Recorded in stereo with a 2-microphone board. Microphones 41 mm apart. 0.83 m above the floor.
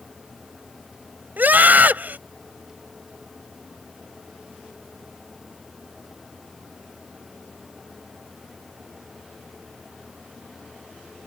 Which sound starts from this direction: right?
A scream, at 1.4 s.